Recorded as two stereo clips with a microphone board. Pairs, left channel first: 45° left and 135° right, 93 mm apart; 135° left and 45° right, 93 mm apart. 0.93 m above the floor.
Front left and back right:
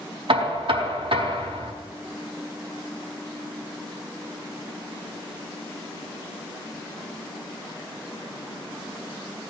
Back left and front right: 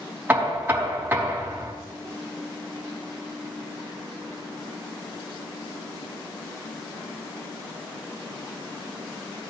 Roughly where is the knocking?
Behind right.